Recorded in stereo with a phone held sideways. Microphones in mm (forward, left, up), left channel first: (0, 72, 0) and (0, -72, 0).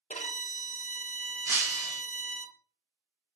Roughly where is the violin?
Left.